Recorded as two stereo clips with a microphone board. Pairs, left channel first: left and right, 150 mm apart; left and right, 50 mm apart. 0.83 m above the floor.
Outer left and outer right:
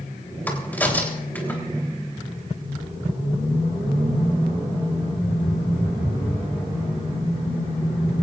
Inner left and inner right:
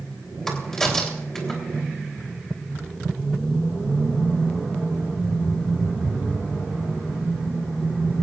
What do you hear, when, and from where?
0.5 s a crack: 10° left (ahead or behind), 3.5 m